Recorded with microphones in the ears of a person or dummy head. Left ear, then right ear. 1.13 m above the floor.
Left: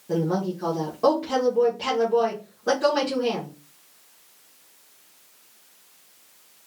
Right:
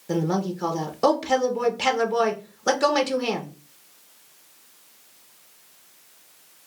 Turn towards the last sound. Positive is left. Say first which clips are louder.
# even
turn(degrees=-35)  # may be behind; listen again after turning